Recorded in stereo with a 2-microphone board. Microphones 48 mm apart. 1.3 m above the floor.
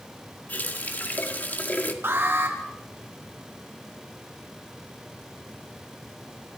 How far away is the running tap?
About 1.9 m.